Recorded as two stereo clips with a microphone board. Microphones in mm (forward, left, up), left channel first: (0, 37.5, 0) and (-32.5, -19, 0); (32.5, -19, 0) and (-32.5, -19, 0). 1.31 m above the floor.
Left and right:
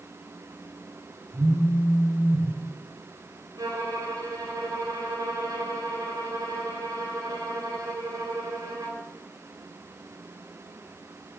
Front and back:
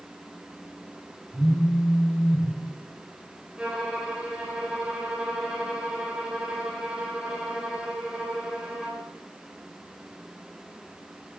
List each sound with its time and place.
1.3 s a phone buzzing: 95° right, 4.5 m
3.6 s a violin: 100° right, 3 m